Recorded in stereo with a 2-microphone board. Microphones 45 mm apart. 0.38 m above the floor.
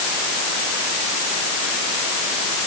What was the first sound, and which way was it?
Only background noise.